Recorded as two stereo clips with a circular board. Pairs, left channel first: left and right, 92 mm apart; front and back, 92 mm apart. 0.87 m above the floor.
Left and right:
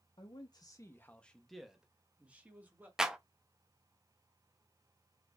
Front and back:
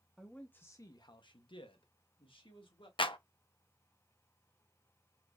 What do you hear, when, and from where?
0.2 s a man speaking: 85° left, 0.6 m; by 2.9 s 20° right, 1.4 m
3.0 s a clap: 5° right, 0.5 m